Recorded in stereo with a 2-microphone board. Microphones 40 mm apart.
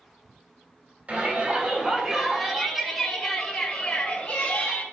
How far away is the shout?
About 1.8 m.